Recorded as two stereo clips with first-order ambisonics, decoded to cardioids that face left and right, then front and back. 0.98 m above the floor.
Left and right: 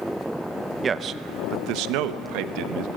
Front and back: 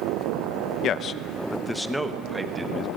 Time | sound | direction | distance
0.8 | a man speaking | 25° right | 0.7 m